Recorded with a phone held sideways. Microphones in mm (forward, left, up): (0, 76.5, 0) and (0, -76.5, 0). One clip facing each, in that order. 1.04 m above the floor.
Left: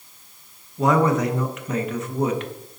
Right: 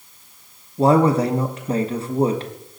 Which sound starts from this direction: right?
A man speaking, at 0.8 s.